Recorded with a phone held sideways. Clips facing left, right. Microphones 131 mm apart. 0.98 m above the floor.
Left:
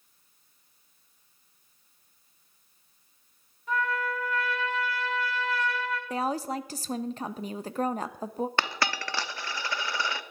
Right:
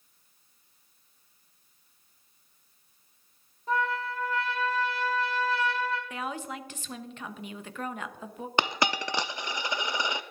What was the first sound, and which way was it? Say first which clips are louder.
A trumpet: even; 35° right (ahead or behind).